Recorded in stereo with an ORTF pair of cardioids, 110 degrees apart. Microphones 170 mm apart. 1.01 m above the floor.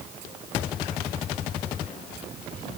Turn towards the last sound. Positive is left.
No sound to turn to.